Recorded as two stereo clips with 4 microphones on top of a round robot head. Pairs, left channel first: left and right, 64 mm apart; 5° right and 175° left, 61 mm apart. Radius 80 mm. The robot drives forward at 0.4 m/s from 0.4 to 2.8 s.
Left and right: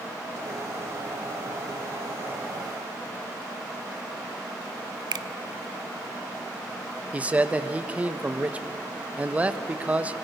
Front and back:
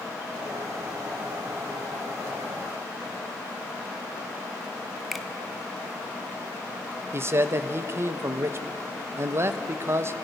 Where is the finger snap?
95° right, 0.5 m.